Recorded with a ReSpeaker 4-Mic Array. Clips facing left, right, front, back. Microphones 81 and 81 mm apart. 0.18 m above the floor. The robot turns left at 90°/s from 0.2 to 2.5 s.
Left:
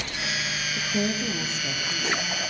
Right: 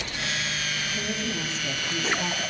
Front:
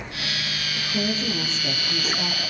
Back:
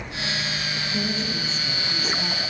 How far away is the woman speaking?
About 5.5 m.